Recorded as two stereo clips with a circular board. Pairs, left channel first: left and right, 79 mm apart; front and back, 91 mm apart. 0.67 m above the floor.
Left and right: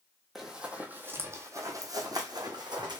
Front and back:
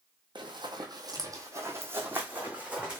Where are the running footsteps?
175° right, 1.2 m; by 3.0 s 100° right, 1.9 m.